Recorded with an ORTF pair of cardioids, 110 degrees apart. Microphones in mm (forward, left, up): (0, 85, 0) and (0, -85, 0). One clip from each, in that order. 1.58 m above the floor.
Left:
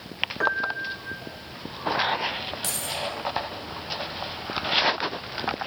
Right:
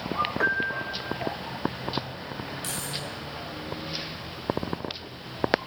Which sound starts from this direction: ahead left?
Keys jangling, at 2.6 s.